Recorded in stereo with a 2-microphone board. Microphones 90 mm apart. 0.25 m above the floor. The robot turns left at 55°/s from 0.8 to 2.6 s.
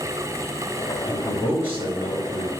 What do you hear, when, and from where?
1.1 s a man speaking: 60° right, 3 m; by 2.5 s 140° right, 3 m